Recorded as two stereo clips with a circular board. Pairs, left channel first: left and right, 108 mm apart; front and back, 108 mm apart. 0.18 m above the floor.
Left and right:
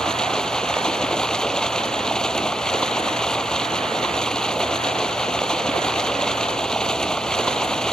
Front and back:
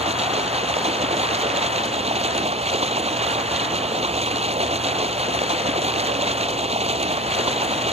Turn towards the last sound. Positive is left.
turn(degrees=175)